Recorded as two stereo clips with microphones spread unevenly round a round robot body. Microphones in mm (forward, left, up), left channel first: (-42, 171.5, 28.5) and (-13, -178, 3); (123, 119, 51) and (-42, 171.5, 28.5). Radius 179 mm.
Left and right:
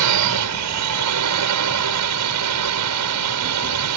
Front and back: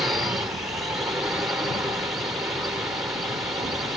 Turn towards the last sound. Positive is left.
turn(degrees=-115)